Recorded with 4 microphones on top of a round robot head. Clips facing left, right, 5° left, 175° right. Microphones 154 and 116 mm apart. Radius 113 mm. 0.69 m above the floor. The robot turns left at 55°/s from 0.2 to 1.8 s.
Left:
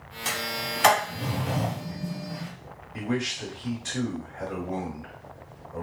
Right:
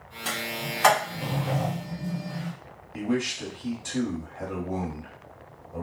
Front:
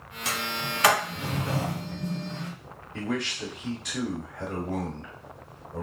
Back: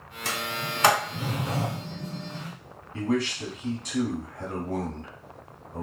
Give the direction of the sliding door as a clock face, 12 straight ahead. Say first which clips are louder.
Even, even; 6 o'clock.